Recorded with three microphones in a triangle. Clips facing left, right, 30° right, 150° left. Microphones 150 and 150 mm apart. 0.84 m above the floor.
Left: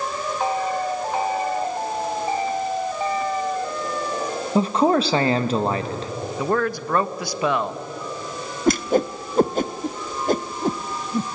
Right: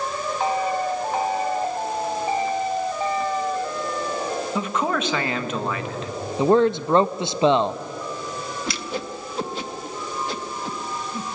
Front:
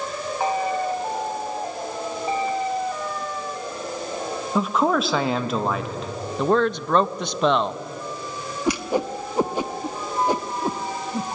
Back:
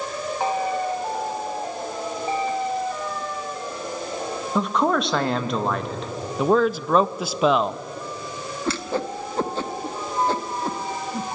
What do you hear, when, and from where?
4.5 s a man speaking: 55° left, 1.2 m
6.4 s a man speaking: 130° right, 0.5 m
8.7 s a whoosh: 45° left, 0.6 m